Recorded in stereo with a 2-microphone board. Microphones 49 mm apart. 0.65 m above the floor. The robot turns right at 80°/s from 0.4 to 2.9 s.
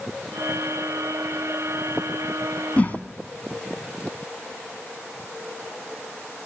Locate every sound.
2.8 s a whoosh: 30° left (ahead or behind), 0.8 m; by 3.0 s 40° left (ahead or behind), 0.8 m